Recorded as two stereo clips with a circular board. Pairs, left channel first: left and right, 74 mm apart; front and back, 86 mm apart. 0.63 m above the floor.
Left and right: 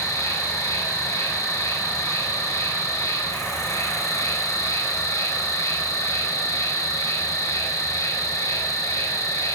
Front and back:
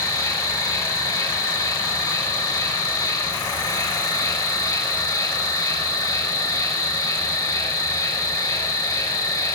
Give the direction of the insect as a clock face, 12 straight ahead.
10 o'clock.